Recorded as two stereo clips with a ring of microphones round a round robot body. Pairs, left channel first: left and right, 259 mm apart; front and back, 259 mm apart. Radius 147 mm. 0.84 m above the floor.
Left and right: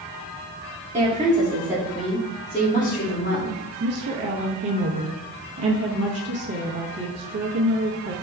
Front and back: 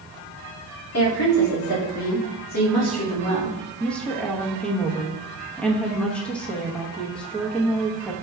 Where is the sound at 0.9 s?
25° right, 2 m; by 3.5 s 45° left, 1.9 m.